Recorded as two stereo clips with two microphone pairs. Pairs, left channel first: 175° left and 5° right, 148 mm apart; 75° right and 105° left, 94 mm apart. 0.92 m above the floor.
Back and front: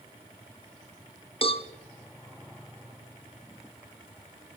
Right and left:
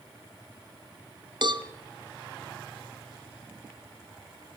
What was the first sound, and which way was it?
A cowbell, 130° left.